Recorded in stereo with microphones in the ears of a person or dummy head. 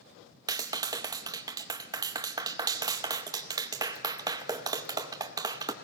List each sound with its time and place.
0.5 s a clap: 20° right (ahead or behind), 0.8 m